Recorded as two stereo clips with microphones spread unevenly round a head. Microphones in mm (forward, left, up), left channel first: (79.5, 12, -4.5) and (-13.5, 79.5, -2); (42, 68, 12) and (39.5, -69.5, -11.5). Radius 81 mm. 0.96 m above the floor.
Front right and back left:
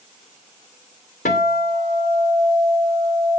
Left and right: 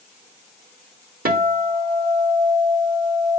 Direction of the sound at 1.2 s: 80° right.